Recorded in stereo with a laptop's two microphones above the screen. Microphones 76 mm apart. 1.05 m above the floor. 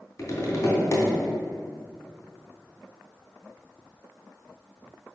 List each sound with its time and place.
0.2 s tapping: 45° left (ahead or behind), 3 m